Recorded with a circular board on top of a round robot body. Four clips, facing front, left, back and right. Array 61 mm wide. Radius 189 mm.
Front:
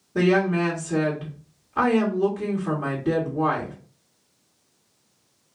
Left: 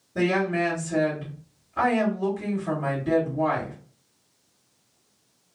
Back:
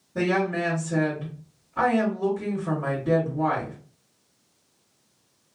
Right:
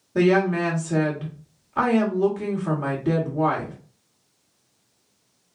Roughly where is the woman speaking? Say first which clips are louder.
Right 4 dB, front 4 dB; ahead right.